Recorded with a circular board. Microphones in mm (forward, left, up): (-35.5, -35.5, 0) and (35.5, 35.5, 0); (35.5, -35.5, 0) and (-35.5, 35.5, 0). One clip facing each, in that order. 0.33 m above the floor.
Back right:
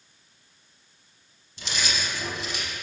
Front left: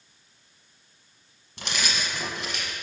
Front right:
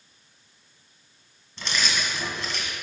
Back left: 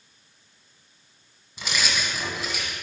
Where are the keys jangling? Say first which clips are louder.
Even, even; 55° left, 1.5 m.